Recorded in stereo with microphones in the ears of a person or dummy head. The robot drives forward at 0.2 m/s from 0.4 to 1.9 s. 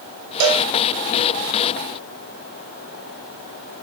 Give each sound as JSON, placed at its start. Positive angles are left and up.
{"t": 0.4, "sound": "a cowbell", "side_deg": -45, "distance_m": 1.3}